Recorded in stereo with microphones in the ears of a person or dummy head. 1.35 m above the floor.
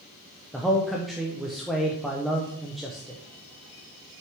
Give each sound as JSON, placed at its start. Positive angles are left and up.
{"t": 0.5, "sound": "a man speaking", "side_deg": 0, "distance_m": 0.9}